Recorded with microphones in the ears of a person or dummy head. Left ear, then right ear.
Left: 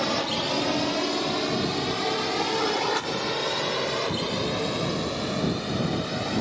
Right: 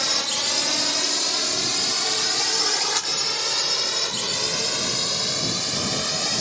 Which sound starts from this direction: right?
A drone, at 0.0 s.